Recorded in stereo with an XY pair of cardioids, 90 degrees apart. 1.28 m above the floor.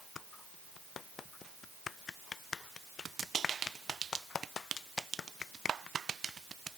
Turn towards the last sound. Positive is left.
No sound to turn to.